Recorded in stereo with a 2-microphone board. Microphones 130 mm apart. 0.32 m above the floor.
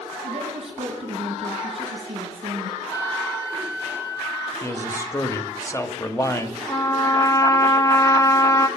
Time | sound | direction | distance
0.2 | a woman speaking | 50° right (ahead or behind) | 3.5 m
2.9 | a flute | 25° left (ahead or behind) | 3 m
4.6 | a man speaking | 25° left (ahead or behind) | 1.4 m
6.7 | a trumpet | 25° left (ahead or behind) | 0.7 m